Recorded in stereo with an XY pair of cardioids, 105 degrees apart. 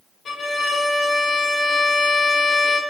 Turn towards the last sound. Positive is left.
turn(degrees=50)